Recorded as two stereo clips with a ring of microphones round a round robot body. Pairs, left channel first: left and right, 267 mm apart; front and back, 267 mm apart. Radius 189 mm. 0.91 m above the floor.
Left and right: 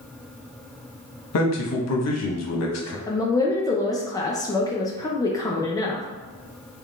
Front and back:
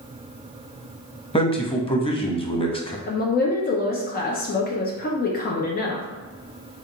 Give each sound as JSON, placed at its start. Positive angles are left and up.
{"t": 1.3, "sound": "a man speaking", "azimuth_deg": 70, "distance_m": 1.1}
{"t": 3.1, "sound": "a woman speaking", "azimuth_deg": 20, "distance_m": 0.6}